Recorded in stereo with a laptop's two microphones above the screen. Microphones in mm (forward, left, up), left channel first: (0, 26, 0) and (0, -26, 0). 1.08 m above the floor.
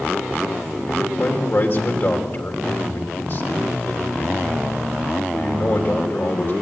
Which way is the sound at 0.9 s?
45° left (ahead or behind).